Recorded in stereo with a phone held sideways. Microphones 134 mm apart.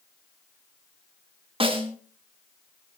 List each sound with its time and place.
1.6 s a snare drum: 40° right (ahead or behind), 2 m